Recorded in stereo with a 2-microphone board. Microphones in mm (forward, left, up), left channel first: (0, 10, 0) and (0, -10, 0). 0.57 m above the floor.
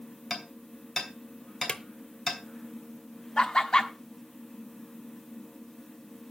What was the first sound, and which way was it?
Hammering, centre (ahead or behind).